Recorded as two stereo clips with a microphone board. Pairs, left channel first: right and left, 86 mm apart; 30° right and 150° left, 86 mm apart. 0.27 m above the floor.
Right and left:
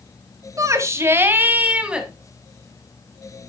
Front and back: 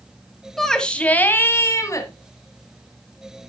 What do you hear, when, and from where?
0.6 s a shout: 55° left, 1.3 m; by 2.1 s 10° left, 1.7 m